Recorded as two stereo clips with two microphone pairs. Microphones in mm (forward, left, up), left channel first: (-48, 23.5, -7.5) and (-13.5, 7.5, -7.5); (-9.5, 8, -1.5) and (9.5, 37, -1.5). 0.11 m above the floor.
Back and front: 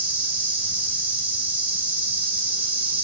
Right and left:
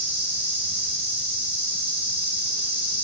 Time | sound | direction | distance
0.0 | an insect | 20° left | 1.1 m